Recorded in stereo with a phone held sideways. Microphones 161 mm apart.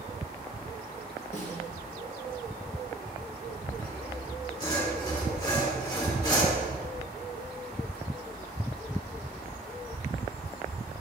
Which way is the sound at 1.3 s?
45° left (ahead or behind).